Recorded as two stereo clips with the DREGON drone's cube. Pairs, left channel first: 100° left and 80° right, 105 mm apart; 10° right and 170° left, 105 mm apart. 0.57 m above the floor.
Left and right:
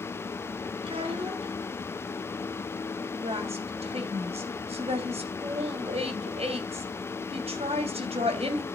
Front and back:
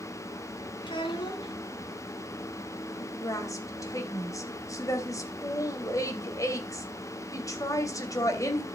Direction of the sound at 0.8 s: 50° right.